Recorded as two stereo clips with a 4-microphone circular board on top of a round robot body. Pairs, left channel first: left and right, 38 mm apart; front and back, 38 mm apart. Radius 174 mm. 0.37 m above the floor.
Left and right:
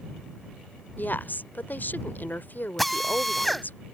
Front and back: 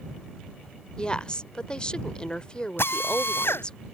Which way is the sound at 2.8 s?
Straight ahead.